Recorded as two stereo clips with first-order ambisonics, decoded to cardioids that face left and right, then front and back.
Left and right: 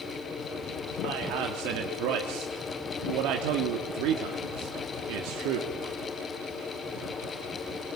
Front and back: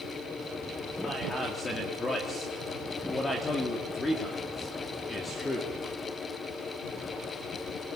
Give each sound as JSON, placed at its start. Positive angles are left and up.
{"t": 1.0, "sound": "a man speaking", "azimuth_deg": -75, "distance_m": 2.5}